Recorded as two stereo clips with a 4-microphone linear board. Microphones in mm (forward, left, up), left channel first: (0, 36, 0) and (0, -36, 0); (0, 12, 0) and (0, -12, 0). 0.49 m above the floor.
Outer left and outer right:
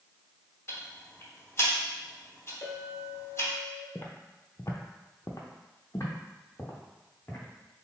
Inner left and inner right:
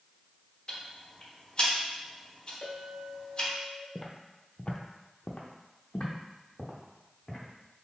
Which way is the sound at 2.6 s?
45° left (ahead or behind).